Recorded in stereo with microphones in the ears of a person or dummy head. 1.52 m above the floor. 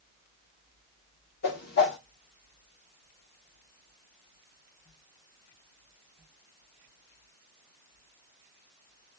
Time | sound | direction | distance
1.4 | a whoosh | 55° left (ahead or behind) | 1.3 m